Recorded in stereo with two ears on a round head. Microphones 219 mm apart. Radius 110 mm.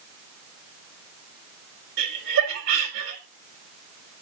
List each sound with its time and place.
2.0 s laughter: 50° right (ahead or behind), 2 m